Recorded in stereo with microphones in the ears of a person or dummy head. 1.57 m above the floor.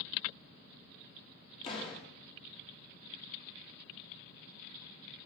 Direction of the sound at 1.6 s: 30° left (ahead or behind).